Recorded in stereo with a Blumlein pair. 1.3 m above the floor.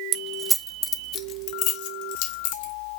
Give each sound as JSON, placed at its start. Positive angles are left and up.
{"t": 0.1, "sound": "keys jangling", "azimuth_deg": -35, "distance_m": 0.6}